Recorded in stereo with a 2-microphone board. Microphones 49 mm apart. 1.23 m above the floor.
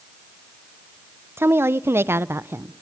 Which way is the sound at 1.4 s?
55° right (ahead or behind).